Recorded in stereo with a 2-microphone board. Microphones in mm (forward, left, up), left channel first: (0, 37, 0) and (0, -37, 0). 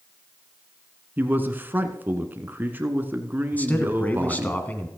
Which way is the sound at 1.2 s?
25° right (ahead or behind).